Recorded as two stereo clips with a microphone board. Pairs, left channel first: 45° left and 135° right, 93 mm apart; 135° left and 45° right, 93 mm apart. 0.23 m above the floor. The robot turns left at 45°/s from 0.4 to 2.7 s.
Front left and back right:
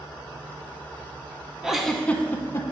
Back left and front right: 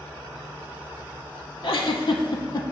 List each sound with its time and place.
1.6 s a giggle: 140° left, 0.7 m; by 2.6 s 95° left, 0.7 m